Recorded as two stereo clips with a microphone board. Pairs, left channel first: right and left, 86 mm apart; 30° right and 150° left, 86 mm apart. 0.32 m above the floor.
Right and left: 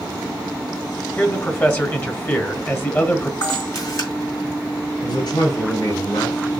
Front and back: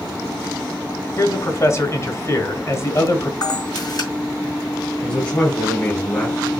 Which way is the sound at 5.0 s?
95° right.